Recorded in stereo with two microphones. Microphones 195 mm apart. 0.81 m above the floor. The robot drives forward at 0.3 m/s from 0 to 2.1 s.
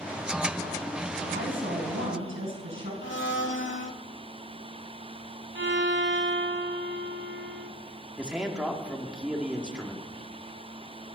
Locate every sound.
1.3 s a woman speaking: 80° right, 5.5 m; by 2.9 s 85° right, 5.5 m
3.0 s a blender: 80° left, 1.4 m
5.5 s a violin: 75° right (ahead or behind), 1.3 m
8.2 s a man speaking: 5° right (ahead or behind), 2.5 m